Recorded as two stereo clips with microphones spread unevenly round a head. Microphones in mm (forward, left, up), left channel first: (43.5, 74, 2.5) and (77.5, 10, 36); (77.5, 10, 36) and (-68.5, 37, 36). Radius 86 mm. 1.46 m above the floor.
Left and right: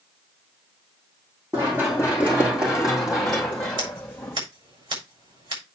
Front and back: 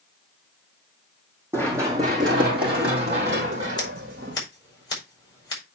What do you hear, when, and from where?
1.5 s running footsteps: 115° right, 3 m; by 4.4 s 155° right, 3 m
3.8 s scissors: 75° right, 4.5 m